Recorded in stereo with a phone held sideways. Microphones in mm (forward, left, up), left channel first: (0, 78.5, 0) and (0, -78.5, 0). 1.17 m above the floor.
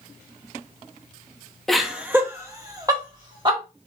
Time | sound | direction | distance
1.7 | laughter | centre (ahead or behind) | 0.7 m